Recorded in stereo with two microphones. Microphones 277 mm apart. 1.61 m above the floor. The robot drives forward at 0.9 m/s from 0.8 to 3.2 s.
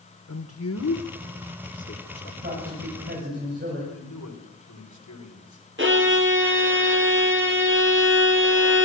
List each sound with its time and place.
0.3 s a man speaking: 70° left (ahead or behind), 1.8 m; by 2.3 s 40° left (ahead or behind), 2.5 m
2.4 s a man speaking: 35° right (ahead or behind), 9 m
3.9 s a man speaking: 85° left, 5.5 m
5.8 s a violin: 40° right (ahead or behind), 3.5 m